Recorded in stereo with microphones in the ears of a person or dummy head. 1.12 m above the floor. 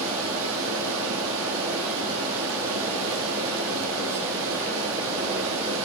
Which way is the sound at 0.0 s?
80° right.